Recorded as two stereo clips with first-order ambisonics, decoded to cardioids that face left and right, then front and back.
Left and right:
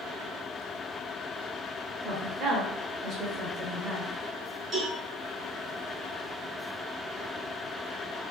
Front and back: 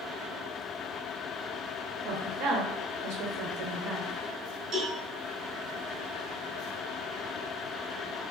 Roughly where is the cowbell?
Behind right.